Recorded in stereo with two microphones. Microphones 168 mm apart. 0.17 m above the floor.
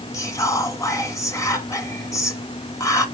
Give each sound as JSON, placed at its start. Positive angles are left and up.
{"t": 0.1, "sound": "whispering", "side_deg": 20, "distance_m": 1.1}